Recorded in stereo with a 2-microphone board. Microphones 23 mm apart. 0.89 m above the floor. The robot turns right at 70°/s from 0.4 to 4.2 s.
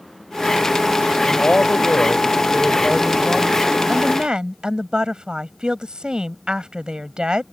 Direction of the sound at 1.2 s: 60° left.